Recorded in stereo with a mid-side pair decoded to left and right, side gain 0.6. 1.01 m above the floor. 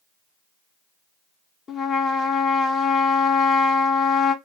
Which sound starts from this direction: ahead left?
A trumpet, at 1.7 s.